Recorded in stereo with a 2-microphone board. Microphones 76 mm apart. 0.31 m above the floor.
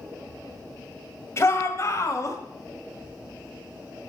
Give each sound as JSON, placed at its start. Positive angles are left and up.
{"t": 1.4, "sound": "a shout", "side_deg": 35, "distance_m": 1.6}